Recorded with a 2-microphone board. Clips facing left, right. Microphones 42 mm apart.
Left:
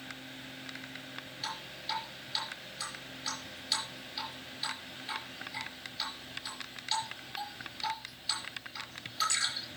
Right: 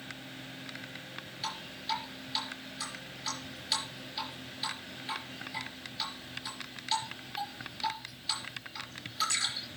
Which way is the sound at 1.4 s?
5° right (ahead or behind).